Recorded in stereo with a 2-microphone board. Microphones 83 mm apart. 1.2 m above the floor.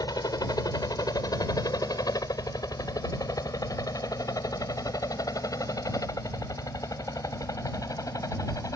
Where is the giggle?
No giggle in this recording.